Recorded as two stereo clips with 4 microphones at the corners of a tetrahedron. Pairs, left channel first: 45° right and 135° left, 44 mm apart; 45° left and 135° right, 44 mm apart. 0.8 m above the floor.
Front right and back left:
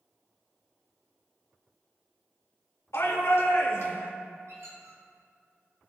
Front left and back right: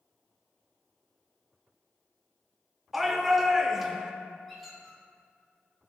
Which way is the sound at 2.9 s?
55° right.